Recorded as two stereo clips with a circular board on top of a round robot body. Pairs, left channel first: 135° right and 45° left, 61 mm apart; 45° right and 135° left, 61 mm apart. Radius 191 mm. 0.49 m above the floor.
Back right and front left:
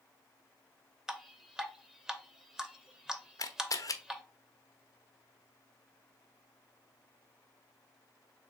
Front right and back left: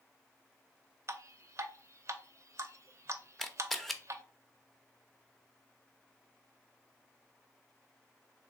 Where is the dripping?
125° left, 0.8 m.